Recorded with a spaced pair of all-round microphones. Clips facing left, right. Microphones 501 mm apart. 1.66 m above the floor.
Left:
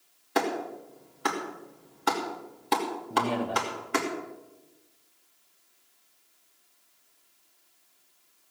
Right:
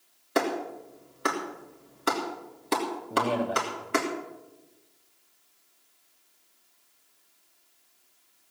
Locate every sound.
0.3 s a clap: 10° left (ahead or behind), 2.5 m
3.1 s a man speaking: 15° left (ahead or behind), 1.5 m